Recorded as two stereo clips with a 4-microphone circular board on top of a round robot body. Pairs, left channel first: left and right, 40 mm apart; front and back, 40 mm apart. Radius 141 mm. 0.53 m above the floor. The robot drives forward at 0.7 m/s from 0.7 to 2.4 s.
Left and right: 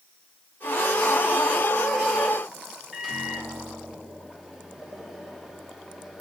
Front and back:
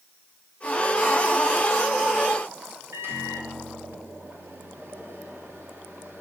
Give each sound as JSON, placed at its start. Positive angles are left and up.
{"t": 2.9, "sound": "a microwave", "azimuth_deg": -170, "distance_m": 2.0}